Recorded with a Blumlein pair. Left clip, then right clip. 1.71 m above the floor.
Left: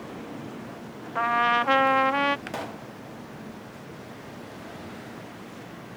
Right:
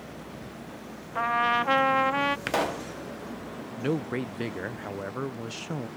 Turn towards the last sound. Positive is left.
turn(degrees=-50)